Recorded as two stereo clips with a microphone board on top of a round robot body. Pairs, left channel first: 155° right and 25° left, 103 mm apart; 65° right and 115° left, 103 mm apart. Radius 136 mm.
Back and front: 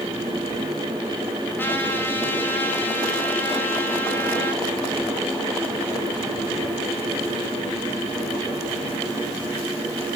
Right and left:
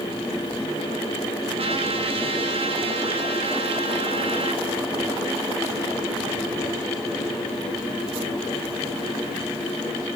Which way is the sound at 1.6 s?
135° left.